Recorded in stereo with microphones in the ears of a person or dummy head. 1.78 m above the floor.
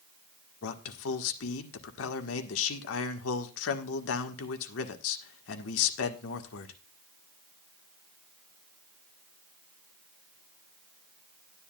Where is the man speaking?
70° left (ahead or behind), 1.7 m.